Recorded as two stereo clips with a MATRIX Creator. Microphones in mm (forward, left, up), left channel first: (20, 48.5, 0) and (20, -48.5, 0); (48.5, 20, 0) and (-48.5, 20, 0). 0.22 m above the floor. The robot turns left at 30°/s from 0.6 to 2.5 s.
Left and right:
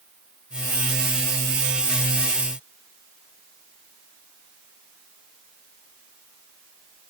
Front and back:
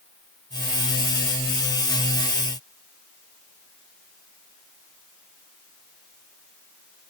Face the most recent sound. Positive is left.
No sound to turn to.